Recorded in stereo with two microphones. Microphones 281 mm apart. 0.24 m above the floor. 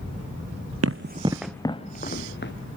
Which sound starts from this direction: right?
Running footsteps, at 0.8 s.